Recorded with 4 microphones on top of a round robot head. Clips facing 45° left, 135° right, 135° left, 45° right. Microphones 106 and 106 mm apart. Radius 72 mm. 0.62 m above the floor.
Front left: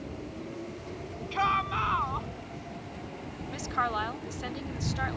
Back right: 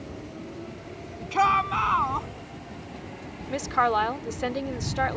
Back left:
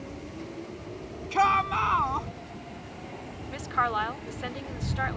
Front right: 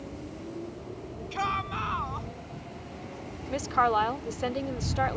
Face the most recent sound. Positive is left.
turn(degrees=-100)